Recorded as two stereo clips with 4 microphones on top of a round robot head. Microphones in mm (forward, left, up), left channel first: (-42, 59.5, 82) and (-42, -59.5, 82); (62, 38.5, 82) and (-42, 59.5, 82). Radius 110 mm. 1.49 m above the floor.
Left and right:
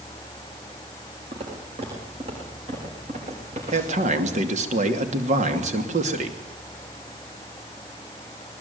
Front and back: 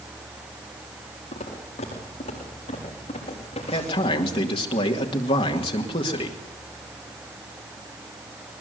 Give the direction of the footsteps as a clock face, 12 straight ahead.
1 o'clock.